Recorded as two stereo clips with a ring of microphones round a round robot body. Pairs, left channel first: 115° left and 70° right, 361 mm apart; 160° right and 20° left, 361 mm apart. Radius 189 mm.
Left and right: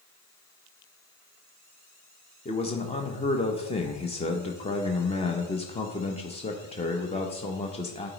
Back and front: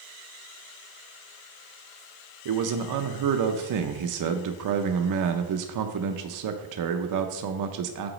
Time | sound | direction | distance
2.5 | a man speaking | 40° left | 0.5 m